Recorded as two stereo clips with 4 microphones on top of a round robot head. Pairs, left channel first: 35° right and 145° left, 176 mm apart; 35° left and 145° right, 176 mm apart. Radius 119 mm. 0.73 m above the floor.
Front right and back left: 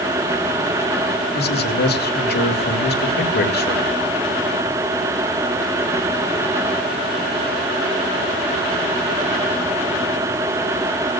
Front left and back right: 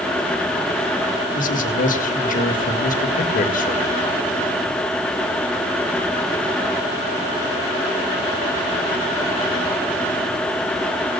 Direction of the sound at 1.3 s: 5° right.